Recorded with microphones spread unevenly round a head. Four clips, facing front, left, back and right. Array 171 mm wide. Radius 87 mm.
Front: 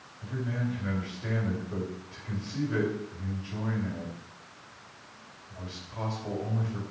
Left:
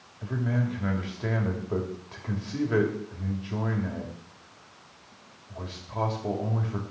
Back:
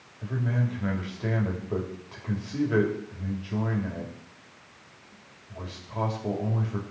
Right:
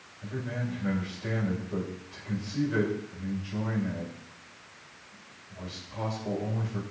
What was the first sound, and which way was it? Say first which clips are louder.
A man speaking: left 5 dB, back 3 dB; 135° left.